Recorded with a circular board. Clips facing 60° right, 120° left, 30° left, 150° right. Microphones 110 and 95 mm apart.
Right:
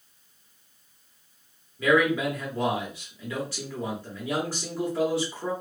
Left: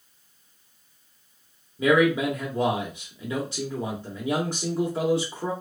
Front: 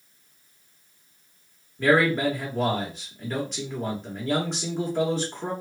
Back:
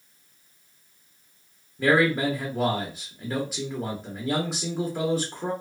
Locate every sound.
1.8 s a man speaking: 140° left, 0.7 m